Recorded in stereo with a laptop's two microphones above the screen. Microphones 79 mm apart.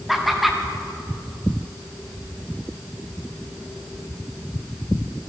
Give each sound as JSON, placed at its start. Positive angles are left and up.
{"t": 0.1, "sound": "laughter", "side_deg": 0, "distance_m": 0.8}